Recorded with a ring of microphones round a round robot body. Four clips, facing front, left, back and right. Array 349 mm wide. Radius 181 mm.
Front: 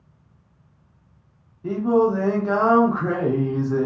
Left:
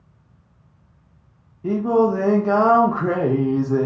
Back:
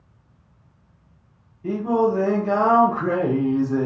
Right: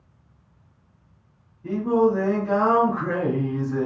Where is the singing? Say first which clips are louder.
Left 2 dB, front 1 dB; 80° left, 0.7 m.